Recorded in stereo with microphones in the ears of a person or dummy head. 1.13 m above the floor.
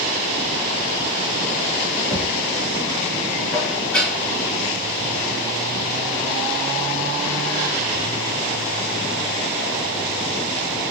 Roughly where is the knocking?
Left.